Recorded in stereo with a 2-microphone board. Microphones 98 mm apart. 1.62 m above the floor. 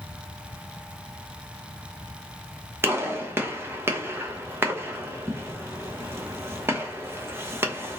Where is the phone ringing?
No phone ringing in this recording.